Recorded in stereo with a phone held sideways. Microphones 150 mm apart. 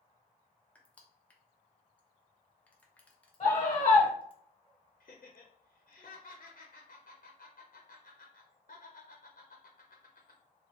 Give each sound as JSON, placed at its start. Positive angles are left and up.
{"t": 0.8, "sound": "crushing", "side_deg": 10, "distance_m": 0.6}
{"t": 3.4, "sound": "a scream", "side_deg": 35, "distance_m": 0.8}
{"t": 5.0, "sound": "laughter", "side_deg": 60, "distance_m": 0.6}